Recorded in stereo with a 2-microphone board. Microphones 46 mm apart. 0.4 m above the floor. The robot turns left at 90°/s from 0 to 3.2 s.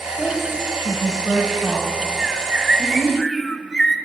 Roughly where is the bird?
Right.